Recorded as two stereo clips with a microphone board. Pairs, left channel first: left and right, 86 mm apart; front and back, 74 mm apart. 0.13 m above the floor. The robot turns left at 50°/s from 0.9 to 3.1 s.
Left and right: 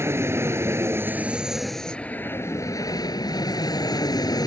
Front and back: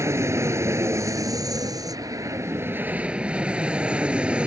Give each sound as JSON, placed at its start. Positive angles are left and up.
{"t": 0.0, "sound": "an aircraft", "azimuth_deg": -140}